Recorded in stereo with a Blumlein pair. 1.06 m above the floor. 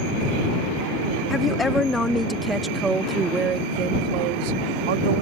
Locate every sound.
1.3 s a woman speaking: 15° left; by 5.2 s 60° right